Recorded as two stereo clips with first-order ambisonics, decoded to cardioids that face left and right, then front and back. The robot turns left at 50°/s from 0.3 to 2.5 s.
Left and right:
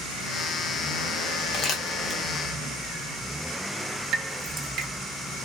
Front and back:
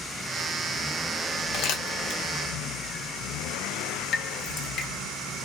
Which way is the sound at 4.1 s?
50° right.